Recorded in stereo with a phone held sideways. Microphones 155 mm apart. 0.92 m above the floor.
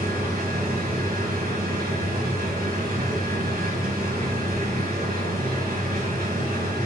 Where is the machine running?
80° right, 2.5 m.